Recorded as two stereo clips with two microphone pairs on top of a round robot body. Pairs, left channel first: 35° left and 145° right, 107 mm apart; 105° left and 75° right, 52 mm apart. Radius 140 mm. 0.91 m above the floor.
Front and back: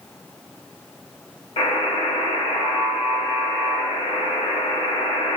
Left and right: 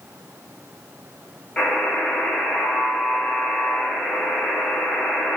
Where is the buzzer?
30° left, 1.1 m.